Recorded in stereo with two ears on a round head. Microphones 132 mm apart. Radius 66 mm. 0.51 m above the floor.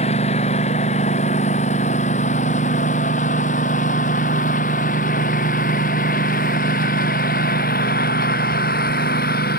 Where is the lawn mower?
45° left (ahead or behind); by 9.6 s 65° left (ahead or behind).